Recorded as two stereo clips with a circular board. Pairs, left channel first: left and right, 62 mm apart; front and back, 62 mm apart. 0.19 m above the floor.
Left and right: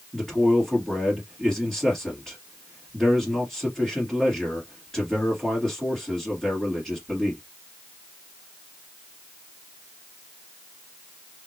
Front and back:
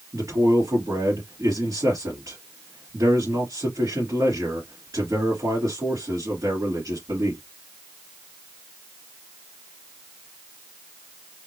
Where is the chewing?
I don't hear chewing.